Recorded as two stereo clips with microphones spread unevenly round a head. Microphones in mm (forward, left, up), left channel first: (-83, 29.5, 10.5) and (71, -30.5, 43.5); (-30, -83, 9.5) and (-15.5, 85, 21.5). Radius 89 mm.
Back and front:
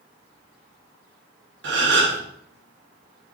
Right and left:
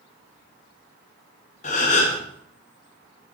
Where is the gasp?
45° right, 4 m.